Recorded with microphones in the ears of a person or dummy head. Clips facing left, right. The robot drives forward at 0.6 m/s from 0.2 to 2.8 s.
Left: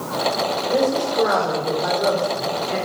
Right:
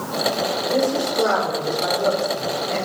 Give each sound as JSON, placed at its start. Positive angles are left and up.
{"t": 0.7, "sound": "a woman speaking", "side_deg": 5, "distance_m": 3.5}